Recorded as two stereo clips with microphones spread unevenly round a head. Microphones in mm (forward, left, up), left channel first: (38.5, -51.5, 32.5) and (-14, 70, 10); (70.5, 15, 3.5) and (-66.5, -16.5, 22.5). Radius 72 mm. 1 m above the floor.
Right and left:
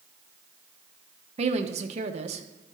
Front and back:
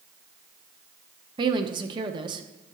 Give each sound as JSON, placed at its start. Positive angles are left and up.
{"t": 1.4, "sound": "a woman speaking", "azimuth_deg": 135, "distance_m": 0.9}